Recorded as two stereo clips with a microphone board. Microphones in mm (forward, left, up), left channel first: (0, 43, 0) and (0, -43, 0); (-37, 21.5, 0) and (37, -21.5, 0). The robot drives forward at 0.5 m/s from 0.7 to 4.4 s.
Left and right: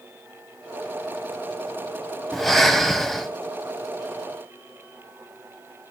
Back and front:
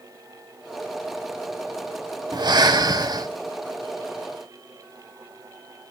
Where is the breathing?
Straight ahead, 1.2 m; by 3.3 s 5° left, 0.7 m.